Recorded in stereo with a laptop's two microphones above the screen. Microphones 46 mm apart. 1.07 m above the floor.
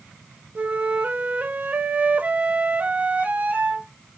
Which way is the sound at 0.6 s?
30° right (ahead or behind).